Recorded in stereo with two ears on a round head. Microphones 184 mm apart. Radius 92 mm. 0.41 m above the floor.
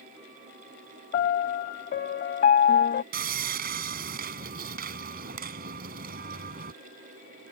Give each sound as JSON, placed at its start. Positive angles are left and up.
{"t": 1.1, "sound": "a piano", "side_deg": 45}
{"t": 3.1, "sound": "sawing", "side_deg": -50}